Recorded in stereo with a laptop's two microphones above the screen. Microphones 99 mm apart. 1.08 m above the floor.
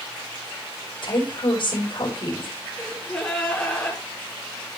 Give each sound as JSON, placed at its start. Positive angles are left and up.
{"t": 1.0, "sound": "a woman speaking", "side_deg": 60, "distance_m": 5.0}
{"t": 2.7, "sound": "a gasp", "side_deg": 10, "distance_m": 3.5}